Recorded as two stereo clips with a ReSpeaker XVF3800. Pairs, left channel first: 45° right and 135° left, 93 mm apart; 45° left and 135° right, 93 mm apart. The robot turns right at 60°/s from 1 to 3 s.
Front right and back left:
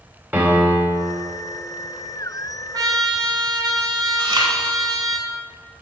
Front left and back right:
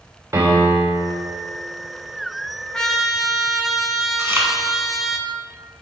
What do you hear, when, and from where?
0.3 s a piano: 170° right, 1.3 m; by 1.1 s 160° right, 1.3 m
2.7 s a trumpet: 120° left, 0.6 m; by 5.2 s 140° left, 0.6 m
4.2 s chewing: 165° left, 1.3 m